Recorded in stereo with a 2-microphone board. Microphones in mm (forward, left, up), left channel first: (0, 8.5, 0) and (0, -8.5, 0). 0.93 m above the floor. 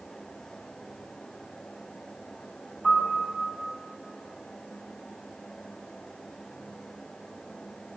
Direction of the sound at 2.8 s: 20° right (ahead or behind).